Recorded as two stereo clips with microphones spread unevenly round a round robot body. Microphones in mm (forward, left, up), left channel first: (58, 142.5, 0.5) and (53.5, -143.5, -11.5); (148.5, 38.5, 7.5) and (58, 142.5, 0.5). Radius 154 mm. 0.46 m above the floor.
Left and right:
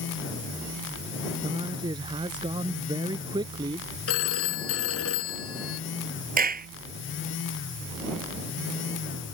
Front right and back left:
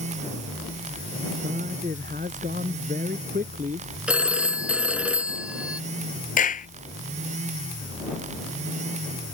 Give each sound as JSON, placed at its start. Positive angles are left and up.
{"t": 1.4, "sound": "a man speaking", "azimuth_deg": -170}
{"t": 4.1, "sound": "a phone ringing", "azimuth_deg": 50}
{"t": 6.4, "sound": "a clap", "azimuth_deg": -30}